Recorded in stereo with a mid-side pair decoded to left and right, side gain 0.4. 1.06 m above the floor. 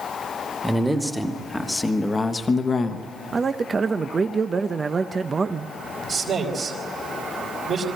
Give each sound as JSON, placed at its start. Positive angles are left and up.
{"t": 0.6, "sound": "a man speaking", "azimuth_deg": -5, "distance_m": 1.9}
{"t": 3.3, "sound": "a man speaking", "azimuth_deg": -35, "distance_m": 0.7}
{"t": 6.1, "sound": "a man speaking", "azimuth_deg": -60, "distance_m": 3.5}